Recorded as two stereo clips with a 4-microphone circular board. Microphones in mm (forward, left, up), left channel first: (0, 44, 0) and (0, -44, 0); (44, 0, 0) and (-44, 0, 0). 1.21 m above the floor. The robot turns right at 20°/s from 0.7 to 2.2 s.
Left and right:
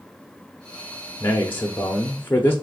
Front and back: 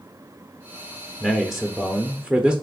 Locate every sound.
1.2 s a man speaking: 90° left, 0.6 m; by 2.5 s 110° left, 0.6 m